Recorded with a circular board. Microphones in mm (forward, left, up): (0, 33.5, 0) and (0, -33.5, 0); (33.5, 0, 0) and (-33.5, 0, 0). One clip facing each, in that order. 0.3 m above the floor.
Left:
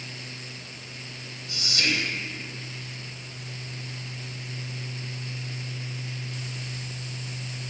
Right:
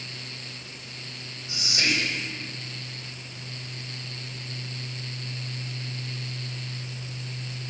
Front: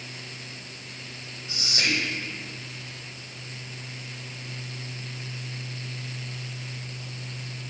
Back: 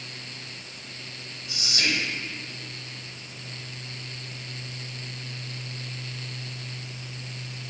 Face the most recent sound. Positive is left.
turn(degrees=-35)